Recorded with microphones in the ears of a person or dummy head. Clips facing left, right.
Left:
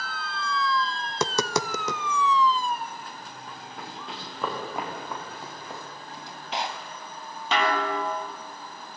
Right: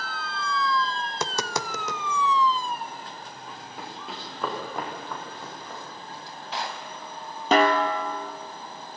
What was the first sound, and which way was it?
Tapping, 80° left.